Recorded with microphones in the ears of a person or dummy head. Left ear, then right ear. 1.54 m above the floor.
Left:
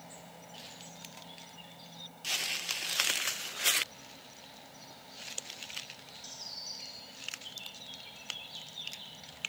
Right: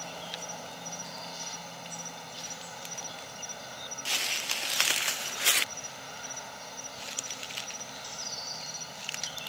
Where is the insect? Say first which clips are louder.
Right 12 dB; 65° right (ahead or behind).